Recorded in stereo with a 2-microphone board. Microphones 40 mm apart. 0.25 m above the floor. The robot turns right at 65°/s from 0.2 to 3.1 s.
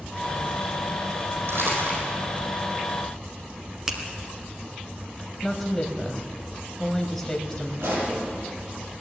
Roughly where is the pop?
Right.